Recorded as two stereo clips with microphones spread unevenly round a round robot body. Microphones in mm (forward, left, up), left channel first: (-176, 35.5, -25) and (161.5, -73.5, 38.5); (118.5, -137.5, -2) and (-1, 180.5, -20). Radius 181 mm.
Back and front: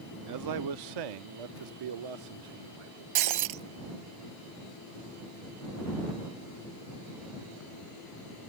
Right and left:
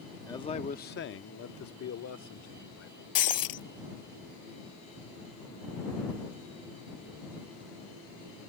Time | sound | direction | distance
0.3 | a man speaking | 10° left | ?
3.1 | breaking glass | 40° right | ?